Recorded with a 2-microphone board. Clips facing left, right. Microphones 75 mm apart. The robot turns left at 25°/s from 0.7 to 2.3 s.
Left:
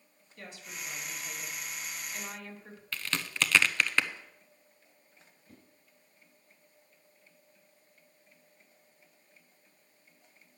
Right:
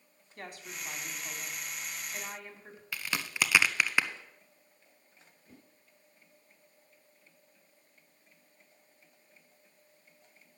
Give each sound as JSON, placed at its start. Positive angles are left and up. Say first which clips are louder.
{"t": 0.4, "sound": "a woman speaking", "louder": "right 1 dB", "azimuth_deg": -115, "distance_m": 2.5}
{"t": 2.9, "sound": "a crack", "louder": "even", "side_deg": -10, "distance_m": 0.7}
{"t": 5.5, "sound": "a whoosh", "louder": "even", "side_deg": -25, "distance_m": 4.0}